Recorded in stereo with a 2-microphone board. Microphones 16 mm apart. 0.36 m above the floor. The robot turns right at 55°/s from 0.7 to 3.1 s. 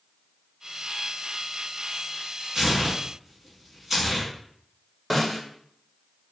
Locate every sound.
2.5 s tearing paper: 45° right (ahead or behind), 1.2 m; by 4.3 s 15° right (ahead or behind), 1.2 m
5.1 s a snare drum: 5° right (ahead or behind), 1.1 m